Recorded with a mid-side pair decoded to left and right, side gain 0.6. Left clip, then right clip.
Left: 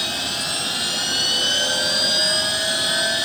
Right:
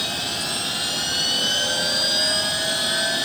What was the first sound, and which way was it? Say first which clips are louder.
A machine running: left 1 dB; 10° left.